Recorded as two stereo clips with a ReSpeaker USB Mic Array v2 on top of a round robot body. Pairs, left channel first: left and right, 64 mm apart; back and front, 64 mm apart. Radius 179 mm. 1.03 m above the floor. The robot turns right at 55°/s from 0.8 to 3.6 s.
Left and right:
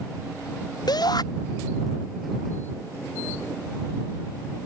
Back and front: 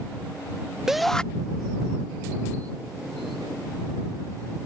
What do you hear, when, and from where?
0.9 s a shout: 85° left; by 1.2 s 105° left